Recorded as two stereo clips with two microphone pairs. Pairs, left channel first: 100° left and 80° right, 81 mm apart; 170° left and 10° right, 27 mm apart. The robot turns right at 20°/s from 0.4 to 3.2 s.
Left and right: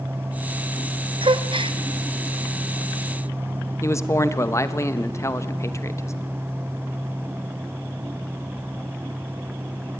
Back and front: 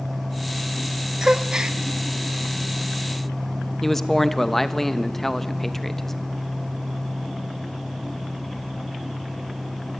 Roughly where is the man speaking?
Left.